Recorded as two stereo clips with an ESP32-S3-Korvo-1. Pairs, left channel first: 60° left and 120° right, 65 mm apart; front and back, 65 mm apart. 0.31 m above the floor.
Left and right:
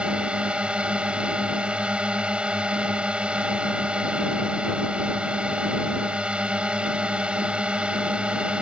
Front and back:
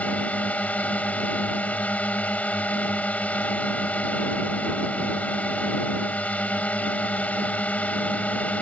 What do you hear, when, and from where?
0.0 s a drone: 55° right